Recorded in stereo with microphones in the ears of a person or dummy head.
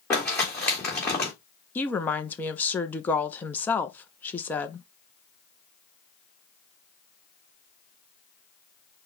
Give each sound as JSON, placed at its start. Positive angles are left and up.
{"t": 0.1, "sound": "crumpling", "side_deg": 15, "distance_m": 1.6}
{"t": 1.8, "sound": "a woman speaking", "side_deg": 5, "distance_m": 0.5}